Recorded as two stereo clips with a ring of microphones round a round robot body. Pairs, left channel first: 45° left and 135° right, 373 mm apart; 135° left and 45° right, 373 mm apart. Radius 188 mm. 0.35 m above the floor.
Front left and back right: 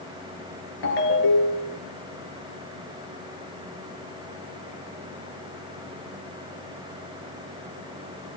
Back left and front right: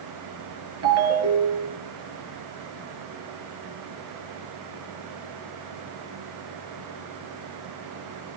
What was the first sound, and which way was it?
A ringtone, 10° left.